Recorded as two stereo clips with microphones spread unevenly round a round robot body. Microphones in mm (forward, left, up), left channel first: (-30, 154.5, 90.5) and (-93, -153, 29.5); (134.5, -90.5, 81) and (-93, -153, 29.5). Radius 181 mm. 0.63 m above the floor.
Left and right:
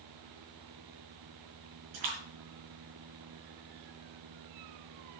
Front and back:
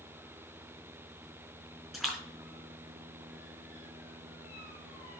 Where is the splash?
75° right, 4 m.